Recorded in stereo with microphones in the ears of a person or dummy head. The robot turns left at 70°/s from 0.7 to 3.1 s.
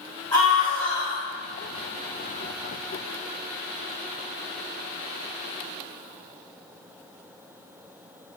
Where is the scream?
160° left, 3.5 m; by 1.3 s 120° left, 3.5 m.